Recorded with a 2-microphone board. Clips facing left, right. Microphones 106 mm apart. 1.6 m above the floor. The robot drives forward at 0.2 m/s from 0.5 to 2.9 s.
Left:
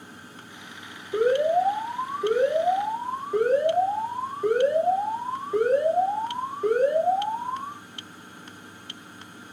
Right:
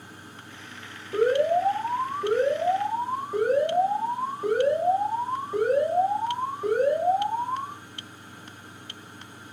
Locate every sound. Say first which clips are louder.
1.1 s an alarm: left 1 dB; 10° right (ahead or behind), 1.6 m; by 7.7 s 5° right (ahead or behind), 2.0 m